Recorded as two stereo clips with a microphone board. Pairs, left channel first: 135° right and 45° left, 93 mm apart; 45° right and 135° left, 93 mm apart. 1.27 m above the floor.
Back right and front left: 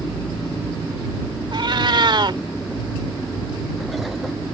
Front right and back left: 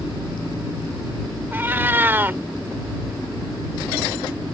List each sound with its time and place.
1.5 s a cat meowing: 70° left